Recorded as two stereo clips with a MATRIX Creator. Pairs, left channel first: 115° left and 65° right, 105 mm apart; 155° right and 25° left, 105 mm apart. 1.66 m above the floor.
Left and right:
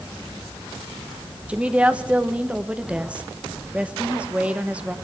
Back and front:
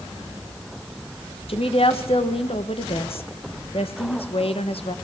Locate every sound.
1.5 s a woman speaking: 145° right, 1.4 m